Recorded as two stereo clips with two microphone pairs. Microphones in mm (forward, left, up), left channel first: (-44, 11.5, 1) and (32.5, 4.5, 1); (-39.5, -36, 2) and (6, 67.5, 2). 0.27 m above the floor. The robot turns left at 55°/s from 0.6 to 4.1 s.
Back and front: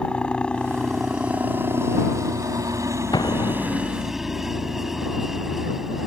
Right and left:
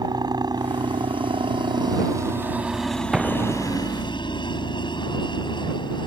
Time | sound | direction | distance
0.0 | a helicopter | 100° left | ?
3.1 | an explosion | 155° left | ?